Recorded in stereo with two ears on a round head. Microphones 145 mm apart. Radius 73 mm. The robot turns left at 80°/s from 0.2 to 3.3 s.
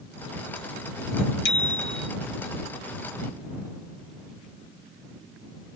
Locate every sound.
1.4 s a bicycle bell: 110° left; by 2.1 s 60° left